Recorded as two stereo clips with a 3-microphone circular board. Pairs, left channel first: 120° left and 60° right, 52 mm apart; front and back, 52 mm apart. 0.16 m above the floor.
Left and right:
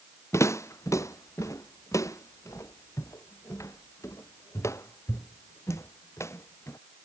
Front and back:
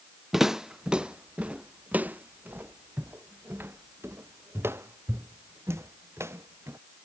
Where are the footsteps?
95° left; by 6.8 s 150° left.